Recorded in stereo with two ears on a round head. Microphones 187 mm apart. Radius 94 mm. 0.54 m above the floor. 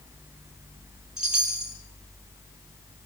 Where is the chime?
5° right (ahead or behind), 4 m.